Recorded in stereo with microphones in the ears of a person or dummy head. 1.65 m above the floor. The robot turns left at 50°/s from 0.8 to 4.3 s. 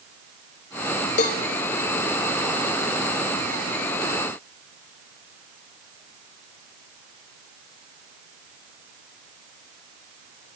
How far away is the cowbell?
About 1.0 m.